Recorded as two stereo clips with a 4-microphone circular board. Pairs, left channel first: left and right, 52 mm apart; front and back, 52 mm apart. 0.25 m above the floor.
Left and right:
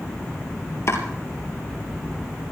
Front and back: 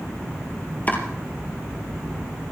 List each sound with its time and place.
0.9 s chopping: 60° left, 3 m